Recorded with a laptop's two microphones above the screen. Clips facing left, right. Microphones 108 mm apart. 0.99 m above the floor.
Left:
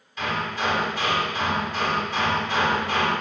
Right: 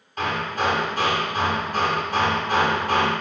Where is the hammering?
45° right (ahead or behind), 2.0 m.